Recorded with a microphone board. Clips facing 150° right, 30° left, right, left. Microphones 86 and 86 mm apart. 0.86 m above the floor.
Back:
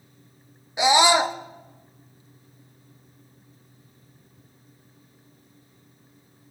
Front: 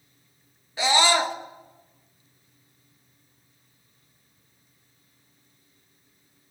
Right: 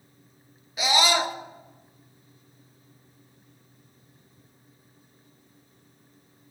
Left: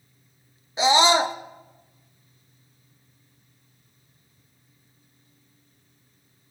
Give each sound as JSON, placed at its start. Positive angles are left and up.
{"t": 0.8, "sound": "a scream", "azimuth_deg": 145, "distance_m": 0.9}